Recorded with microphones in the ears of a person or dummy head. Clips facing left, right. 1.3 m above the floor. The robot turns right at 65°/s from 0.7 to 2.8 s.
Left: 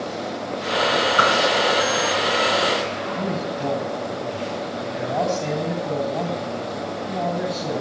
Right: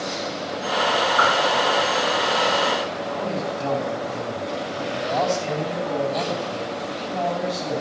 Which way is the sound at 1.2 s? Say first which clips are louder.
Left 1 dB; 40° left (ahead or behind).